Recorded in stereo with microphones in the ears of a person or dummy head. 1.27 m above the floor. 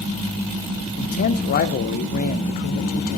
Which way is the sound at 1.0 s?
45° left (ahead or behind).